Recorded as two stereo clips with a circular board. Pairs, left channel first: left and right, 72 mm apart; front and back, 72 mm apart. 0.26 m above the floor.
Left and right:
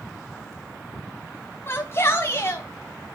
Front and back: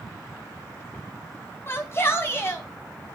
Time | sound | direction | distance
1.7 | a shout | 45° left | 1.8 m